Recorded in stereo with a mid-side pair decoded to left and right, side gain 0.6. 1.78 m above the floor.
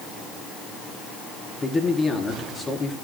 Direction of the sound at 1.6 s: 25° left.